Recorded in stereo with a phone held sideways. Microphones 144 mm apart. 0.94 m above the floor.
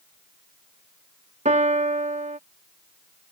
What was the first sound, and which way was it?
A piano, 50° right (ahead or behind).